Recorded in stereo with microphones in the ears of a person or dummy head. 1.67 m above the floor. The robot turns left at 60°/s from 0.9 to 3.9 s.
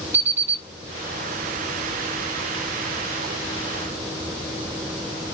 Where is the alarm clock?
15° right (ahead or behind), 2.5 m.